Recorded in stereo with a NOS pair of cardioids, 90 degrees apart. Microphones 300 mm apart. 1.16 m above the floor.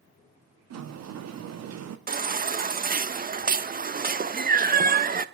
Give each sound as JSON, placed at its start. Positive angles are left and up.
{"t": 0.7, "sound": "a sliding door", "azimuth_deg": -60, "distance_m": 1.7}
{"t": 2.1, "sound": "a baby crying", "azimuth_deg": -30, "distance_m": 1.0}